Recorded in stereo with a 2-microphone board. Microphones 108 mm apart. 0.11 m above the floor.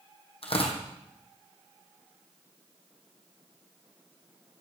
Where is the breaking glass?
I don't hear breaking glass.